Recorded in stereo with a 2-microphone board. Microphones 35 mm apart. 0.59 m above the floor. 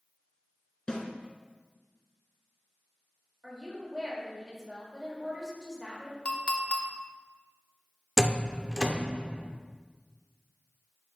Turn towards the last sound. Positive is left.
turn(degrees=-5)  # may be behind; listen again after turning